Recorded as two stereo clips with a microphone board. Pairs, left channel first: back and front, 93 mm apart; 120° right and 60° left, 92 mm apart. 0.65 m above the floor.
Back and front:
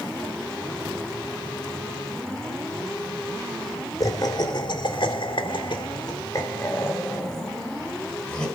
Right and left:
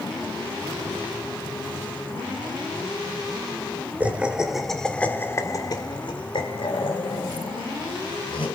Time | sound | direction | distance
4.0 | laughter | 135° left | 2.5 m